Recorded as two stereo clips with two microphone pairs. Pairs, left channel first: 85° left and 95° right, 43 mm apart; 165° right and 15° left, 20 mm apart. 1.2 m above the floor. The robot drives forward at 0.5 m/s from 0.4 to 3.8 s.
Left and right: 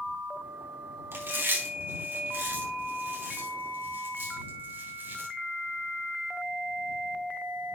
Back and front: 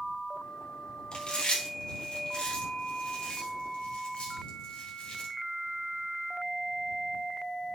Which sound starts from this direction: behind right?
Chewing, at 1.1 s.